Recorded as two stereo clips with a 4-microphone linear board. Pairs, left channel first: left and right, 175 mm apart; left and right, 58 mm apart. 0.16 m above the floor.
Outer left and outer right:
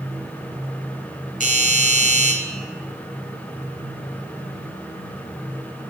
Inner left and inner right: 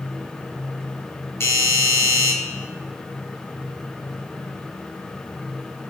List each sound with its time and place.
1.4 s a doorbell: 50° left (ahead or behind), 4.5 m